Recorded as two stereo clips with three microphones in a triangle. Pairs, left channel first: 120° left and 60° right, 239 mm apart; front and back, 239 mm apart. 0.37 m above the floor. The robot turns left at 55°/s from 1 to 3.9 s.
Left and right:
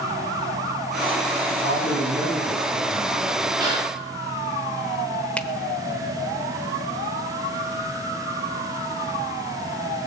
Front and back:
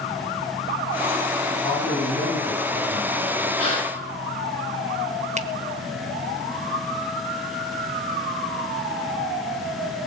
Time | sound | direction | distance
1.5 | a man speaking | 95° left | 9.5 m
3.6 | a gasp | 15° left | 6.5 m
5.4 | a finger snap | 160° right | 0.8 m